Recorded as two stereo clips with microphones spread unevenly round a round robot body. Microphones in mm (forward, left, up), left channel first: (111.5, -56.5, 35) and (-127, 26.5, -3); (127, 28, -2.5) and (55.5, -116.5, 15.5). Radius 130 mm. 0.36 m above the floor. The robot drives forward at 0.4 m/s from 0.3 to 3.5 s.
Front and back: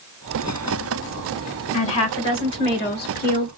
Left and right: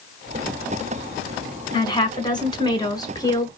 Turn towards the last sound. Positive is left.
turn(degrees=25)